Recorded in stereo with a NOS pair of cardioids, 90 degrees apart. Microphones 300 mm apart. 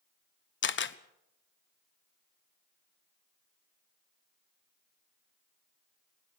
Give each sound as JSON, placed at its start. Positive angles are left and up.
{"t": 0.6, "sound": "a camera shutter", "azimuth_deg": 40, "distance_m": 1.1}